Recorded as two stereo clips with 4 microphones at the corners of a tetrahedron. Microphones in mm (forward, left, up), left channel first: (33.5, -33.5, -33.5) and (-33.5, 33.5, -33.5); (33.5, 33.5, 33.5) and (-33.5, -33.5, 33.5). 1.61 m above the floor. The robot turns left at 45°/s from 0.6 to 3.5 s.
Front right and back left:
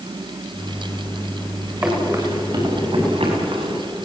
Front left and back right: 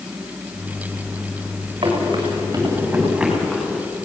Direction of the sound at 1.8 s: 160° right.